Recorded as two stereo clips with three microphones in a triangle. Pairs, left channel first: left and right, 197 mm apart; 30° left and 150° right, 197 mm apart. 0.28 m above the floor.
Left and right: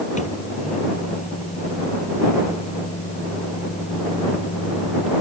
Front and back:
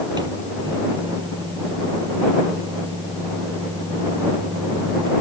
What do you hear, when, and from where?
0.2 s a microwave: 145° left